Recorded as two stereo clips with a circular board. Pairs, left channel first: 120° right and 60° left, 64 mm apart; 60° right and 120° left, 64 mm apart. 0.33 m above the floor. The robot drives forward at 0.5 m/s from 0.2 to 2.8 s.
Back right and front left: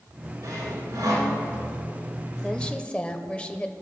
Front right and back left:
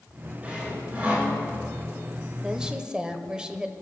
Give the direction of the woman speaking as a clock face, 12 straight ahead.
6 o'clock.